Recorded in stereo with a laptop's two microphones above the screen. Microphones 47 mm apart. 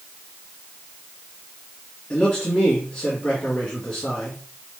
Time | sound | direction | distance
2.1 | a man speaking | 20° left (ahead or behind) | 1.3 m